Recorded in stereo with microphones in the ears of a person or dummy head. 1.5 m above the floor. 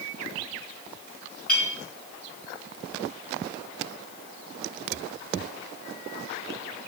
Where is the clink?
5° left (ahead or behind), 2.5 m.